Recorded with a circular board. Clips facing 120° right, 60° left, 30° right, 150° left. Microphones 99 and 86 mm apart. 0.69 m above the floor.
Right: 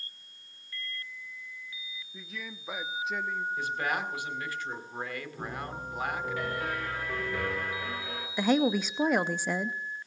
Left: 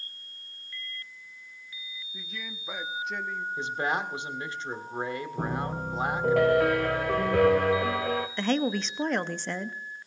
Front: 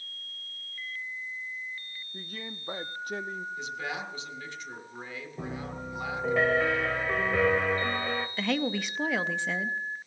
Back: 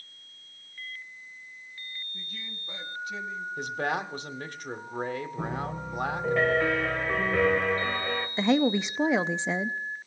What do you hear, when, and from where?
2.1 s a man speaking: 30° right, 0.7 m
3.6 s a man speaking: 125° left, 1.5 m
5.4 s a piano: 60° left, 1.4 m
8.4 s a woman speaking: 170° left, 0.5 m